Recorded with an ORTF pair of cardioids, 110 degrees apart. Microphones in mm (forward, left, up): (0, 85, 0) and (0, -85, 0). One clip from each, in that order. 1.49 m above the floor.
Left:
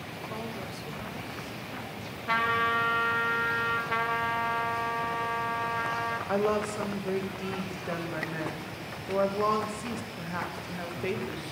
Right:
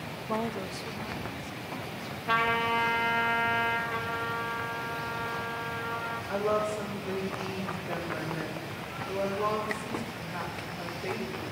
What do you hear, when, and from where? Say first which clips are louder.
0.3 s a woman speaking: right 8 dB; 45° right, 0.5 m; by 2.2 s straight ahead, 2 m
2.3 s a trumpet: even; straight ahead, 1.5 m
3.9 s a trumpet: left 4 dB; 65° left, 1.5 m
6.3 s a woman speaking: right 1 dB; 45° left, 1.8 m